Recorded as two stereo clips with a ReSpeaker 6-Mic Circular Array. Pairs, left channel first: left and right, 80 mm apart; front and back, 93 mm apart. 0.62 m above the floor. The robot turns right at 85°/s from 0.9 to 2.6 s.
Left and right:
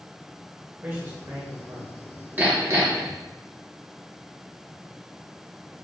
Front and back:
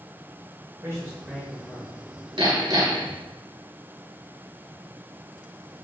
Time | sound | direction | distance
0.8 | a man speaking | 150° right | 1.1 m
2.4 | hammering | 160° right | 1.6 m